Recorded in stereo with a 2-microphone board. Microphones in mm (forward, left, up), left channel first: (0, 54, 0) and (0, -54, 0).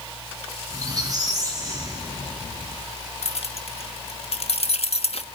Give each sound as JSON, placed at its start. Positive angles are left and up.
{"t": 0.7, "sound": "a squeak", "side_deg": -35, "distance_m": 10.0}
{"t": 3.2, "sound": "keys jangling", "side_deg": 65, "distance_m": 1.3}